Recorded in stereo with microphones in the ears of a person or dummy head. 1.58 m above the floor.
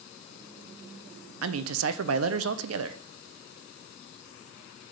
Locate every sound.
1.4 s a man speaking: 80° right, 0.6 m